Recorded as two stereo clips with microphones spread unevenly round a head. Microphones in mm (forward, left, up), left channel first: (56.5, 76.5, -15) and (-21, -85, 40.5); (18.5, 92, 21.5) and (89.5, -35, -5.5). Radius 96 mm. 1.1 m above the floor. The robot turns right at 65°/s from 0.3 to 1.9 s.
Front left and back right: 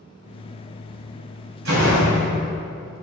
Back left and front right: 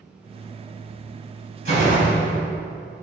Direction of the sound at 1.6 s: 110° right.